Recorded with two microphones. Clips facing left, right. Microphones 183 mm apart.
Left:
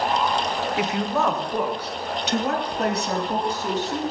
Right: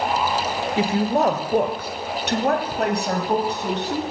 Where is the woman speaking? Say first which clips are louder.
Right 6 dB; 25° right (ahead or behind), 0.9 m; by 4.0 s 65° right (ahead or behind), 2 m.